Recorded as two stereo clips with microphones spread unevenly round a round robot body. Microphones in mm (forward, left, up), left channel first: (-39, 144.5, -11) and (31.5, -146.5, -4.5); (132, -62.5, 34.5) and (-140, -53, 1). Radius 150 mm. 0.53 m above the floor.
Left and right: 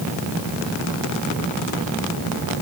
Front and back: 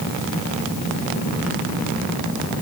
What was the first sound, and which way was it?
Only background noise.